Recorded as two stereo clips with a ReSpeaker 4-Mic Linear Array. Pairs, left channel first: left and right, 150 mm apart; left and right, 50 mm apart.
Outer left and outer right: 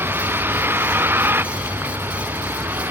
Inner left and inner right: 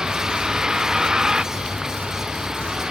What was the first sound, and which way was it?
A vehicle, 15° right (ahead or behind).